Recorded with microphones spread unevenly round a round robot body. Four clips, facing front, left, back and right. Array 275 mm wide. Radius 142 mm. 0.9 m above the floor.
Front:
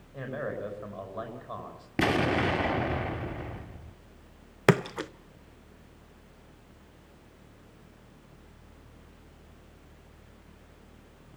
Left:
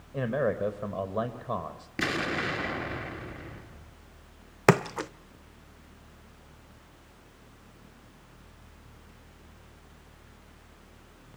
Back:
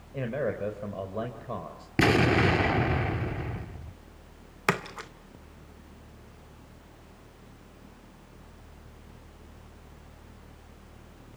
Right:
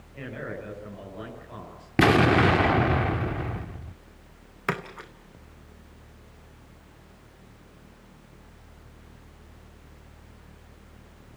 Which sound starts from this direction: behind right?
An explosion, at 2.0 s.